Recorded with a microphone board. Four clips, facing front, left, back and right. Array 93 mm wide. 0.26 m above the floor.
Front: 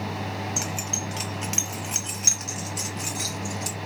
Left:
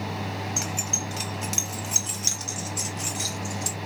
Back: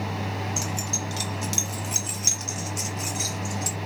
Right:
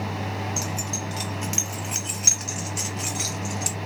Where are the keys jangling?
40° left, 0.9 m; by 3.8 s 85° right, 1.7 m.